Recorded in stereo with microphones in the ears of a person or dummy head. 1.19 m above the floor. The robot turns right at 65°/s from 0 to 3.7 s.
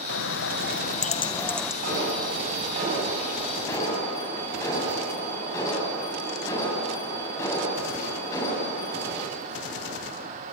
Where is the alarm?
105° right, 7.5 m; by 9.2 s 15° left, 7.5 m.